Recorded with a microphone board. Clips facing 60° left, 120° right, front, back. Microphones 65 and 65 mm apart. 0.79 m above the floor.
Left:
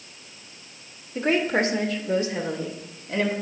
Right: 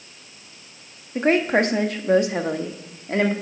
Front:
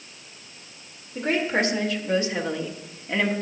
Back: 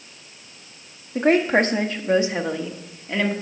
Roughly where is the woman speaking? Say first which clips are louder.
Right 4 dB, back 6 dB; behind.